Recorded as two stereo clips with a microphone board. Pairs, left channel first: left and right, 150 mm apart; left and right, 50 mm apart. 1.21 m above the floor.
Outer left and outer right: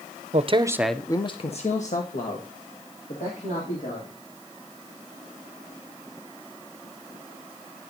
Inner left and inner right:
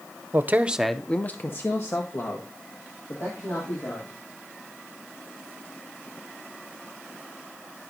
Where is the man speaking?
50° right (ahead or behind), 0.7 m; by 4.2 s 70° left (ahead or behind), 3.5 m.